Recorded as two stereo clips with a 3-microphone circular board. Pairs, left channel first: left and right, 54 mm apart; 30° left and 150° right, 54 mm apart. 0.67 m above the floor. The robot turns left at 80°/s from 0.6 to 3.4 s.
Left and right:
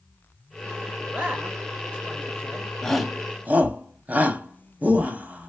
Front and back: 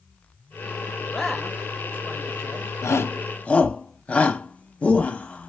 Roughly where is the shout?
Ahead.